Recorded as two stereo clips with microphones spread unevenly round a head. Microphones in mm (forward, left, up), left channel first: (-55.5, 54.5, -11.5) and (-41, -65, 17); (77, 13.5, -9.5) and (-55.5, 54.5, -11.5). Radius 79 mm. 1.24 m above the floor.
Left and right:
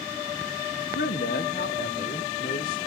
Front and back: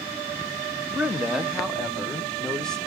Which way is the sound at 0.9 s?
85° left.